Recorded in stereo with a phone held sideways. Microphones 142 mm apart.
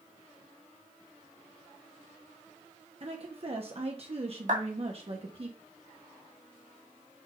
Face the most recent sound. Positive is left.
turn(degrees=-65)  # may be behind; listen again after turning